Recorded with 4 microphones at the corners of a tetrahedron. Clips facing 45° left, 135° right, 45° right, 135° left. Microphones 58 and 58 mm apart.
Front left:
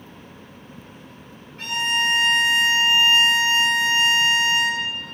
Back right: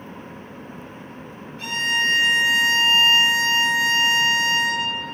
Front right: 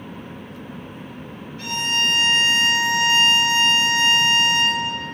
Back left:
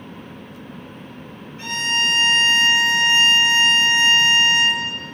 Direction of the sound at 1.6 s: 75° left.